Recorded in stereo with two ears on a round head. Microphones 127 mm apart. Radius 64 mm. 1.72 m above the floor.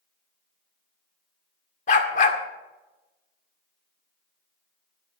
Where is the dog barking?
55° left (ahead or behind), 2 m.